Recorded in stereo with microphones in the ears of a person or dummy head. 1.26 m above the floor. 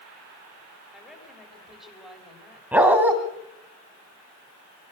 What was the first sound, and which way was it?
A woman speaking, centre (ahead or behind).